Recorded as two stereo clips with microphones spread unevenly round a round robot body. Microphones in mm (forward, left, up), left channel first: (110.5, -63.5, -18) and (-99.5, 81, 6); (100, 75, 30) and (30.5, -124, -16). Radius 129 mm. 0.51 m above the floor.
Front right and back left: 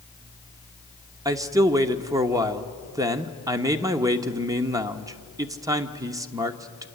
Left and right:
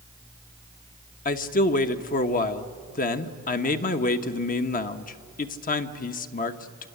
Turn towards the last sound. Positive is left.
turn(degrees=75)